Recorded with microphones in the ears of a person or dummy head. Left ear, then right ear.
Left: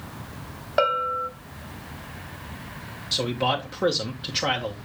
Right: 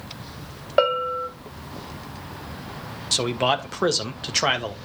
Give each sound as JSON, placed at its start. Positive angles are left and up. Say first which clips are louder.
{"t": 0.8, "sound": "a bell", "louder": "right 2 dB", "side_deg": -15, "distance_m": 1.1}
{"t": 3.1, "sound": "a man speaking", "louder": "right 3 dB", "side_deg": -55, "distance_m": 1.4}